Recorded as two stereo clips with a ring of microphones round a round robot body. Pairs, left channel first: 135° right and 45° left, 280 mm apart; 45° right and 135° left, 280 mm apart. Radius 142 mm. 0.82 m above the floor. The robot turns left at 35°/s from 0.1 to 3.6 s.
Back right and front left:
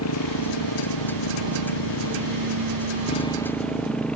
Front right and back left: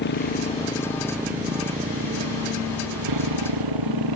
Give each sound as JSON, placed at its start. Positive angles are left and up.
{"t": 0.0, "sound": "a motorcycle", "azimuth_deg": -100}